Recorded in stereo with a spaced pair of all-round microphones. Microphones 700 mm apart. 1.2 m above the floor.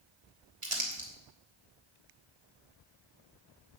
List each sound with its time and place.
0.6 s crumpling: 45° right (ahead or behind), 3 m